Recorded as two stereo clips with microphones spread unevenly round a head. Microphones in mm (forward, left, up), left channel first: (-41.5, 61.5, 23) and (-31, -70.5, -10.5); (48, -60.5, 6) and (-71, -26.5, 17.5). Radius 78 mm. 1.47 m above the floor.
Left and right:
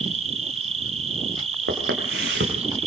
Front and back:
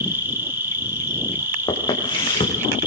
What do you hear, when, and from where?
0.0 s an insect: 125° right, 2 m
1.7 s footsteps: 70° right, 6.5 m